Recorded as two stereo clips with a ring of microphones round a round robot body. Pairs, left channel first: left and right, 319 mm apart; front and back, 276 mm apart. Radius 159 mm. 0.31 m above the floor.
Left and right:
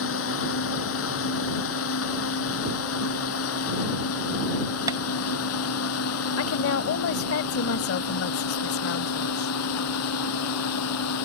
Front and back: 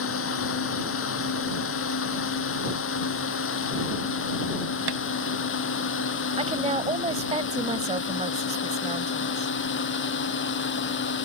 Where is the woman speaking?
120° left.